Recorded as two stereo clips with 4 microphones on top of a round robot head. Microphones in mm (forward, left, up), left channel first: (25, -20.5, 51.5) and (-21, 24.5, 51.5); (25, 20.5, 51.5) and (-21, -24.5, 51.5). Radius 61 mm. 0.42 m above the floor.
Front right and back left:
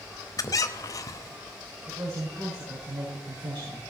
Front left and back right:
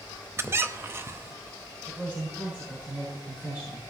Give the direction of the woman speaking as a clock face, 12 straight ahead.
7 o'clock.